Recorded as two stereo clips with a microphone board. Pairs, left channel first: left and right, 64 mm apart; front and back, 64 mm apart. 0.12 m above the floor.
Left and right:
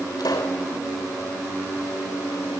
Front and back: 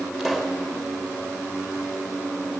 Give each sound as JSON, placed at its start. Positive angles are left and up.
{"t": 0.2, "sound": "a pop", "azimuth_deg": 90, "distance_m": 5.5}